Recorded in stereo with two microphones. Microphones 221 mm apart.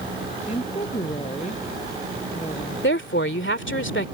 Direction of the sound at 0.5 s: 30° left (ahead or behind).